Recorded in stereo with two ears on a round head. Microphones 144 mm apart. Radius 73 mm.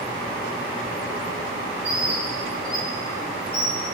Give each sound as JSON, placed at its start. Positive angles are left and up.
{"t": 1.8, "sound": "a bird", "side_deg": -5, "distance_m": 2.0}